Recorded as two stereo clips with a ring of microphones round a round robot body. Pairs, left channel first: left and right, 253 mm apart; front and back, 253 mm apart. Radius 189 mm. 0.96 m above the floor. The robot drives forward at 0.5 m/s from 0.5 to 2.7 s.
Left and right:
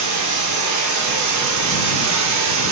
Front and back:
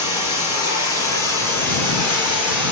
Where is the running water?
75° right, 3 m; by 2.7 s 95° right, 3 m.